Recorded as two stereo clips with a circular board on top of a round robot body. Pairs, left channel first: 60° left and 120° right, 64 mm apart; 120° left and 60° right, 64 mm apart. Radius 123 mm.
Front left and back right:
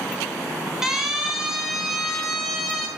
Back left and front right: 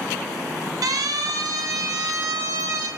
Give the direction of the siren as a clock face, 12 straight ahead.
1 o'clock.